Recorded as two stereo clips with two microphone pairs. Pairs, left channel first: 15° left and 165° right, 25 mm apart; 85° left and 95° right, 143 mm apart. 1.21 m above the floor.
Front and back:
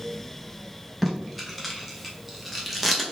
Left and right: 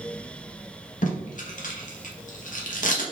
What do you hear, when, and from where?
1.0 s tape being pulled: 110° left, 1.1 m